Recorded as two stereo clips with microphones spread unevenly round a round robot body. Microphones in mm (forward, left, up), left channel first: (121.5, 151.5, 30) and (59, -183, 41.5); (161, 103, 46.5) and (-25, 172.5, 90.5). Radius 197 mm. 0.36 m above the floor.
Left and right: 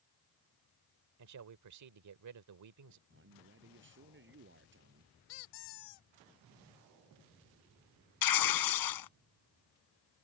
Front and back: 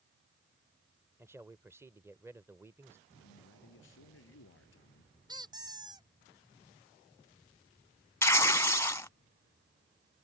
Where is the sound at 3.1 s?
45° right.